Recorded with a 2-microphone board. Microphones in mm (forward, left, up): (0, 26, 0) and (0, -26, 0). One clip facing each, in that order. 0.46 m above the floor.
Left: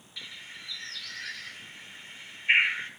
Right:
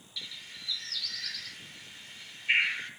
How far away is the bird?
About 0.8 m.